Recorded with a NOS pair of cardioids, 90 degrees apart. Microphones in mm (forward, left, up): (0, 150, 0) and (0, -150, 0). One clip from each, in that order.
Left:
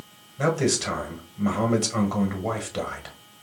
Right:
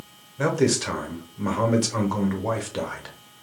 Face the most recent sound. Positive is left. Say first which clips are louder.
# right 1 dB
turn(degrees=-5)